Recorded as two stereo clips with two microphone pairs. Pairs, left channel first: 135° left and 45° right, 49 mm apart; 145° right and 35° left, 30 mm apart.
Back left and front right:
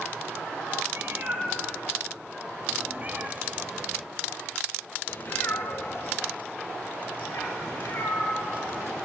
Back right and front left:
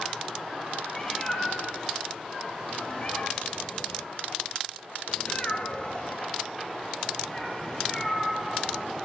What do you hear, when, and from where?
0.9 s a cat meowing: 75° right, 1.9 m; by 9.1 s 140° left, 2.5 m